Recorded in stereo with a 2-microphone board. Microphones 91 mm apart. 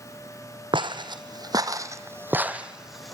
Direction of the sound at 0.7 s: 60° right (ahead or behind).